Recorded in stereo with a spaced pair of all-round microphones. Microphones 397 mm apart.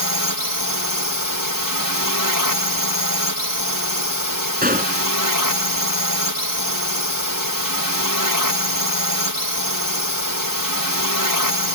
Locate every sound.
0.0 s a drone: 60° right (ahead or behind)
4.6 s a gunshot: 25° right (ahead or behind)